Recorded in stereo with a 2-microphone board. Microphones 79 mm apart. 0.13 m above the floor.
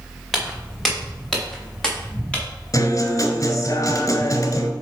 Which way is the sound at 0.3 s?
Centre (ahead or behind).